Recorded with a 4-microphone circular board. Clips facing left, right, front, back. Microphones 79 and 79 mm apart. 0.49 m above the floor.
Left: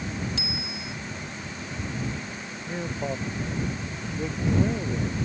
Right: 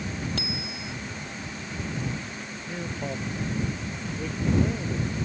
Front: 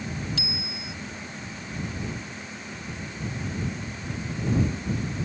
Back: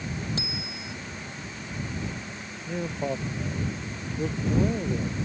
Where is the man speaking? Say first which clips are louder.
Left 3 dB, back 13 dB; 165° left.